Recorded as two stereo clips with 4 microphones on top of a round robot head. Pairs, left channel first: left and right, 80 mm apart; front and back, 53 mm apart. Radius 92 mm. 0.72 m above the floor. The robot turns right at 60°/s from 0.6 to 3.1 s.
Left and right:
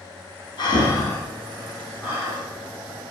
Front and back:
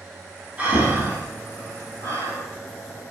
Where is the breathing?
110° left, 2.5 m; by 2.4 s 140° right, 2.5 m.